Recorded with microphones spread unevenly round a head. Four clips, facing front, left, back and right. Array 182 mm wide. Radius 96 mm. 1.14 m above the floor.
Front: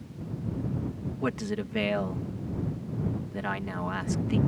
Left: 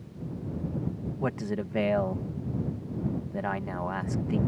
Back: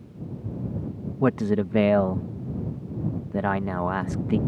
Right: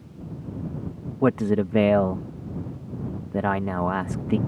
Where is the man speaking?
105° right.